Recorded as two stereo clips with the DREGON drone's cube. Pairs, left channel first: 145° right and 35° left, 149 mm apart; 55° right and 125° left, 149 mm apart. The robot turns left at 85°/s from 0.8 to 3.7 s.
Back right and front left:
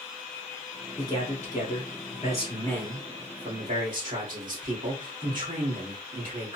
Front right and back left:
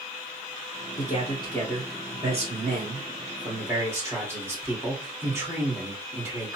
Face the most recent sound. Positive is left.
turn(degrees=55)